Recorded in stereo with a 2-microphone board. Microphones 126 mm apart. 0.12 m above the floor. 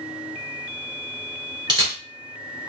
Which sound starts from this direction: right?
A camera shutter, at 1.7 s.